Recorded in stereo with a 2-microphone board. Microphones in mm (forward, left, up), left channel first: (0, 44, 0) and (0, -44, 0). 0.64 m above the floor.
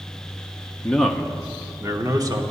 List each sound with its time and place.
0.8 s a man speaking: 15° left (ahead or behind), 0.7 m; by 2.4 s 45° right (ahead or behind), 1.4 m